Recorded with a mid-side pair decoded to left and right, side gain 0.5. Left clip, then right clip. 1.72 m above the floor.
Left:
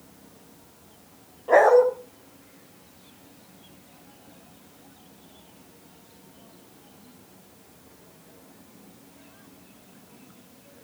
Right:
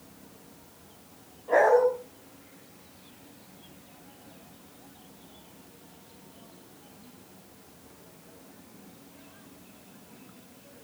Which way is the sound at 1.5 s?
50° left.